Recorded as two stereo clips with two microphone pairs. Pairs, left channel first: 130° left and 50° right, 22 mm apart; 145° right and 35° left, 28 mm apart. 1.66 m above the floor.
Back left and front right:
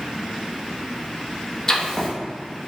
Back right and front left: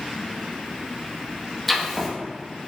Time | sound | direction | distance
1.7 | writing | 140° left | 0.6 m